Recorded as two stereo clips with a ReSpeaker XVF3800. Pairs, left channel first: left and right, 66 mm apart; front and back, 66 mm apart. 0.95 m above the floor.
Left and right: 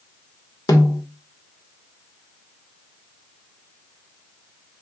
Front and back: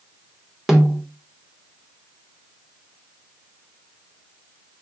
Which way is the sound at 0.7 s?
95° left.